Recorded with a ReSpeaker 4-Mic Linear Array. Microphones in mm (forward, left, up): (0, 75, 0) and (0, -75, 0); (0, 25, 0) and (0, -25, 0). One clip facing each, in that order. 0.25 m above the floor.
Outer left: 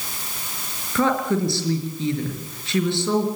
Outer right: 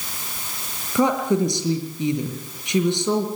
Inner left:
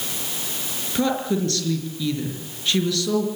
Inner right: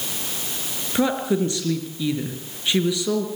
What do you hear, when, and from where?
0.9 s a woman speaking: 15° right (ahead or behind), 4.5 m